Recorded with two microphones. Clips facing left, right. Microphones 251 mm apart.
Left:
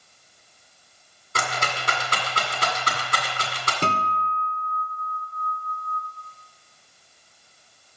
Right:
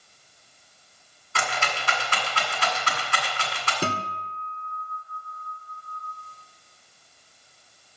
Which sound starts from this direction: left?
A rattle, at 1.4 s.